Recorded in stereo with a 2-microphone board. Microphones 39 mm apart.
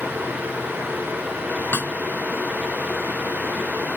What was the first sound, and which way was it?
A snare drum, 60° left (ahead or behind).